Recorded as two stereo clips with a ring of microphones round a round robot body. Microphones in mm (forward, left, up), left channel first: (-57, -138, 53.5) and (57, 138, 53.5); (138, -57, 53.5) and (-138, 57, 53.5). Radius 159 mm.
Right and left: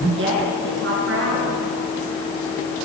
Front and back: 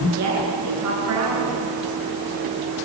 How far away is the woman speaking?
About 7 m.